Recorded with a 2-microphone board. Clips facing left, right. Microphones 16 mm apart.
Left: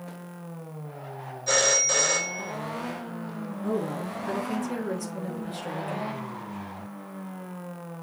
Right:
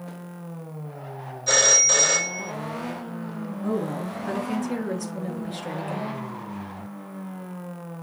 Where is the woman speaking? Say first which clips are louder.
Right 2 dB; 25° right (ahead or behind), 1.2 m.